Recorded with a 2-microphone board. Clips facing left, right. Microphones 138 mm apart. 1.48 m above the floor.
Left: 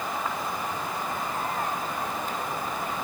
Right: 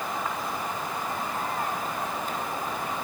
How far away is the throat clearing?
I don't hear throat clearing.